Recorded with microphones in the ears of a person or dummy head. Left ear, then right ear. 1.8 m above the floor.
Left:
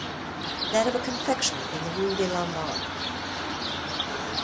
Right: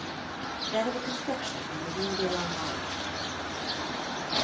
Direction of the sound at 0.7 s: 85° left.